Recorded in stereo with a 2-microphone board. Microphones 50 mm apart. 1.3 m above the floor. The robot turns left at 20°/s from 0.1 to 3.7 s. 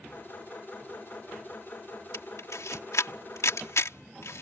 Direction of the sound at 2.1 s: 75° left (ahead or behind).